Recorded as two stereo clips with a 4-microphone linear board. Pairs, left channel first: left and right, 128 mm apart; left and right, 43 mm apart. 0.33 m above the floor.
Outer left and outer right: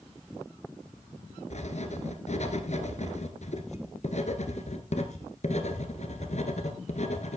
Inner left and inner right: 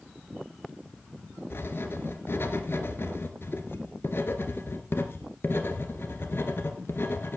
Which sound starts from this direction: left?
Writing, at 1.5 s.